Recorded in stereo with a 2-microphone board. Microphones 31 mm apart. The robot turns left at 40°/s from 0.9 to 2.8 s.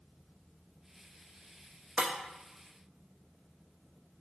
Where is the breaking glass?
30° right (ahead or behind), 0.9 m; by 2.1 s 25° right (ahead or behind), 0.9 m.